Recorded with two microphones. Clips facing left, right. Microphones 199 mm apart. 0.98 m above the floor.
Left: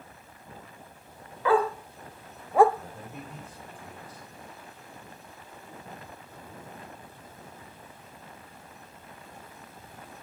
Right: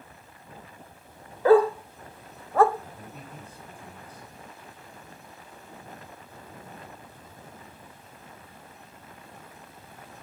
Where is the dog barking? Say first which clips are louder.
Right 7 dB; 40° right (ahead or behind), 0.9 m; by 2.6 s 15° left (ahead or behind), 0.8 m.